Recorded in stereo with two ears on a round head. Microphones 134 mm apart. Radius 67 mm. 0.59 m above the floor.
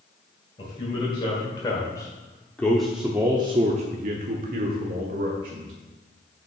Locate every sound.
0.6 s a man speaking: 35° left (ahead or behind), 2.5 m; by 5.7 s 60° right (ahead or behind), 2.0 m